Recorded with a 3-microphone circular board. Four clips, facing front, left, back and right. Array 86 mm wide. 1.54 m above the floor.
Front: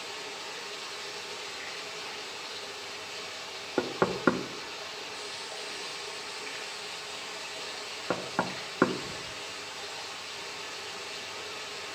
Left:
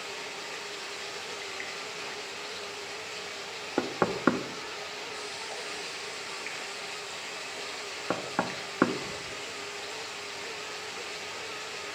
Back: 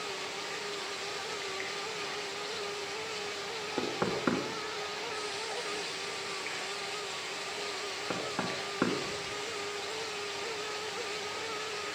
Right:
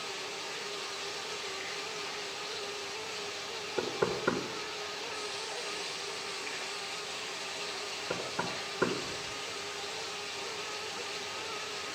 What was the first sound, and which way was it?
Running water, 125° left.